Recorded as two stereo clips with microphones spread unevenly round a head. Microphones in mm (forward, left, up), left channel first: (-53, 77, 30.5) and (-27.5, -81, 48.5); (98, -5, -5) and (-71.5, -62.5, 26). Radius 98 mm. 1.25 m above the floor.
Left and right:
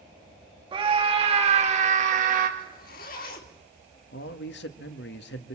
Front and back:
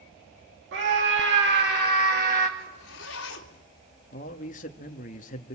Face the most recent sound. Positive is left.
turn(degrees=75)